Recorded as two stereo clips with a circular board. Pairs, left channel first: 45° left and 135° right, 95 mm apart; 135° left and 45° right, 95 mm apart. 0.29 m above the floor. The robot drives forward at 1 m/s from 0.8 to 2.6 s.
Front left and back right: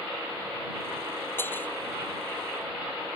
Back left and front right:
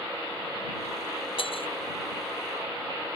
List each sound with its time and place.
1.4 s breaking glass: 110° left; by 1.7 s 115° left